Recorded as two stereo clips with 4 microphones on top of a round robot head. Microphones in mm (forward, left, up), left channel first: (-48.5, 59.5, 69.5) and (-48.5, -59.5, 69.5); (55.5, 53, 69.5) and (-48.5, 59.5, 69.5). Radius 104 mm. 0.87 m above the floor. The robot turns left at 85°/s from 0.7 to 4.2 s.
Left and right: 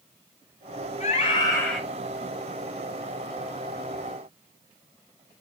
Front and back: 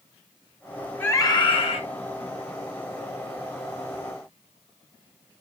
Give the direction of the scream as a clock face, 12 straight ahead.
10 o'clock.